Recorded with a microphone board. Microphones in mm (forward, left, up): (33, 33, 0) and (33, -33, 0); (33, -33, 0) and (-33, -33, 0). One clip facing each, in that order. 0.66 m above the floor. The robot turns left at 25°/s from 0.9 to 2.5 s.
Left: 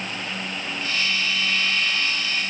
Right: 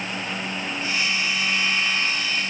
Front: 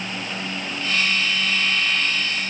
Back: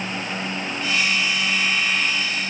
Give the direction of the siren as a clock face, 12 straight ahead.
No siren in this recording.